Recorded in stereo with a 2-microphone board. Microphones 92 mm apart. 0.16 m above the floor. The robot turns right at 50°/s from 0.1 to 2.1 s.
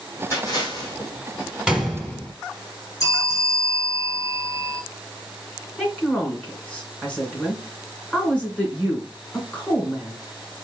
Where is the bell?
40° left (ahead or behind), 2.5 m.